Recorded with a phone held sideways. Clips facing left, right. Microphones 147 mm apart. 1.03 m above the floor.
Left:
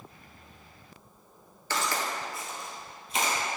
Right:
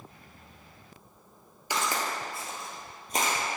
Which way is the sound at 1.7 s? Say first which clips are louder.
Even; 15° right (ahead or behind).